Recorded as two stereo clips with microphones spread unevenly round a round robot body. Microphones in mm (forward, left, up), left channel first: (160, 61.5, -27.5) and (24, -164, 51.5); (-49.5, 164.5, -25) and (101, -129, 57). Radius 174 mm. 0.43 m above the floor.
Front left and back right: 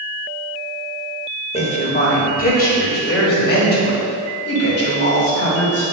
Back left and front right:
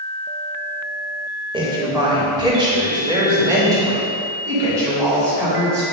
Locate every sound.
1.5 s a woman speaking: 20° left, 1.8 m; by 5.8 s 25° left, 4 m